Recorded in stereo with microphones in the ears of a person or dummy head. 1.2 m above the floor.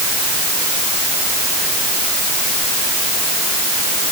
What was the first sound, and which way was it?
Only background noise.